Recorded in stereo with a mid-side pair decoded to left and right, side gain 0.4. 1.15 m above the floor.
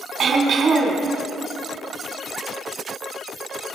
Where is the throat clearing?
60° right, 4 m.